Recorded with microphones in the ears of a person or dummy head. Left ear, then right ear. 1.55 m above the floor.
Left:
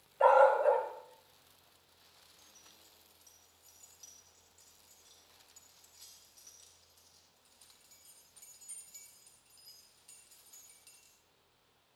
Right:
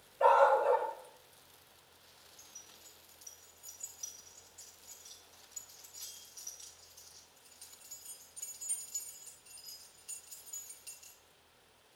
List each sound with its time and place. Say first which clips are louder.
0.2 s a dog barking: left 1 dB; 30° left (ahead or behind), 1.8 m
2.4 s keys jangling: right 8 dB; 10° right (ahead or behind), 1.5 m